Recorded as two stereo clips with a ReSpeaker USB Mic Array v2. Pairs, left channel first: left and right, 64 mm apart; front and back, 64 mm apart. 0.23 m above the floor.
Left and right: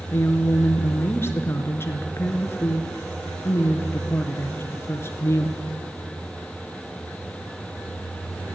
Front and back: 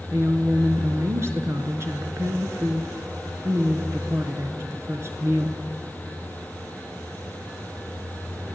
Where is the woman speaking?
140° left, 3.5 m.